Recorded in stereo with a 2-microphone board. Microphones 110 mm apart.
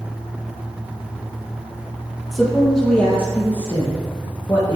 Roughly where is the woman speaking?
Centre.